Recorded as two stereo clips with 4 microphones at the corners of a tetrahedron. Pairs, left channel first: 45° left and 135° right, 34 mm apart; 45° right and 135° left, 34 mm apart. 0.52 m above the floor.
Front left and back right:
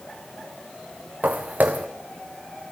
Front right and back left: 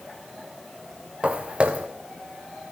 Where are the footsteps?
170° right, 1.8 m.